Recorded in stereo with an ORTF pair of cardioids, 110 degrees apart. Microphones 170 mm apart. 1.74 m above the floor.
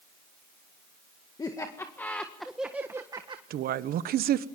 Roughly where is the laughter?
Ahead.